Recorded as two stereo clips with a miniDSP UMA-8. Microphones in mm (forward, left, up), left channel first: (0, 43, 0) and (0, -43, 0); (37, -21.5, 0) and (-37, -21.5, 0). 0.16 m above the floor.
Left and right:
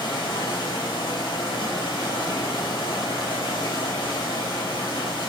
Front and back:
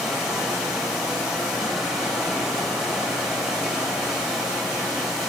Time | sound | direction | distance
0.0 | running water | 95° left | 4 m